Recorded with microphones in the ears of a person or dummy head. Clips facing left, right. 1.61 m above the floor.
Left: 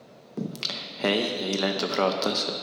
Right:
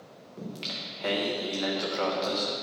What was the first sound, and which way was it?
Singing, 60° left (ahead or behind).